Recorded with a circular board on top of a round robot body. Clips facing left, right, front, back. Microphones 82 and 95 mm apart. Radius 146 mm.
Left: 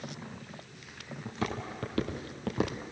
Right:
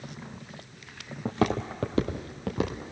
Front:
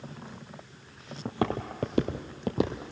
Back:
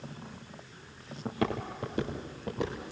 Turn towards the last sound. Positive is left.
turn(degrees=10)